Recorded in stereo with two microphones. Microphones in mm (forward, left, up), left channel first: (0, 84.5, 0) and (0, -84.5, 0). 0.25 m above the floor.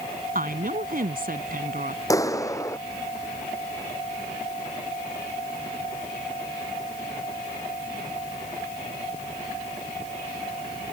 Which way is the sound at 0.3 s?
60° right (ahead or behind).